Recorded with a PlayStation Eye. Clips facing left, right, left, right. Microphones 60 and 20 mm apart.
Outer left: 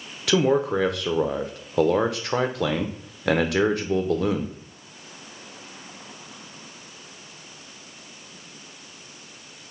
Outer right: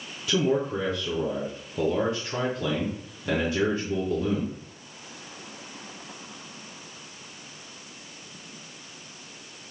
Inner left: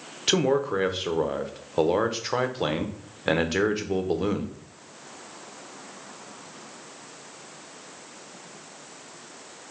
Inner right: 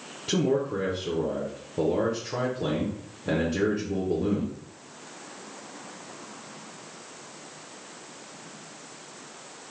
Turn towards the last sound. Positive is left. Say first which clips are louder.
# outer left 4 dB, inner left 3 dB
turn(degrees=75)  # may be behind; listen again after turning